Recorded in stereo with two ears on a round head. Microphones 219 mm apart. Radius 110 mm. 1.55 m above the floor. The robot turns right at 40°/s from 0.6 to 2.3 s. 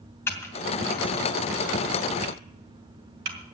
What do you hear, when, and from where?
0.3 s typing on a keyboard: 10° left (ahead or behind), 2.5 m; by 3.4 s 45° right (ahead or behind), 2.5 m